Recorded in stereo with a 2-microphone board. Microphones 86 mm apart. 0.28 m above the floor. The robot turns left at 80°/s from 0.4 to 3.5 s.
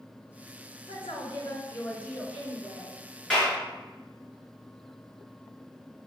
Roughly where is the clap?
Centre.